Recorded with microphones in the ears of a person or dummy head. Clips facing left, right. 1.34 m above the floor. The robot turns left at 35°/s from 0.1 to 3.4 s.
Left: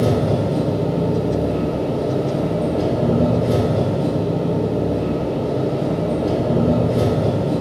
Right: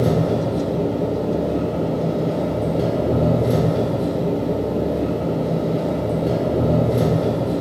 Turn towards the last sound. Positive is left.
turn(degrees=-20)